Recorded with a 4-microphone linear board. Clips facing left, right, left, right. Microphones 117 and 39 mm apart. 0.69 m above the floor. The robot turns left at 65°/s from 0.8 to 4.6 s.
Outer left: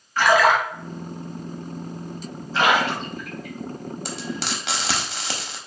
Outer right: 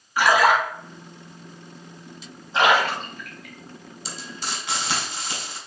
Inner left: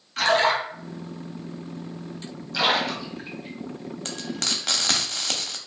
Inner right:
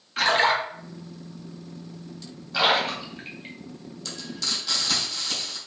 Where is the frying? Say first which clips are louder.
Outer left 3 dB, inner left 2 dB; 55° left (ahead or behind), 0.5 m; by 5.6 s 90° left, 0.5 m.